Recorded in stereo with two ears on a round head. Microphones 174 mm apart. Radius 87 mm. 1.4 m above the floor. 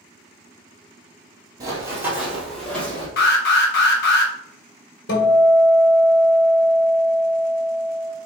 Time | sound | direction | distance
1.6 | running footsteps | 20° right (ahead or behind) | 1.9 m
3.2 | an alarm | 60° left (ahead or behind) | 1.6 m
5.1 | a guitar | 60° left (ahead or behind) | 1.6 m